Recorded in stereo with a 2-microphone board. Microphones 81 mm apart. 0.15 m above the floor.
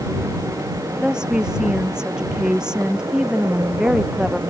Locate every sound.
1.0 s a woman speaking: 10° right (ahead or behind)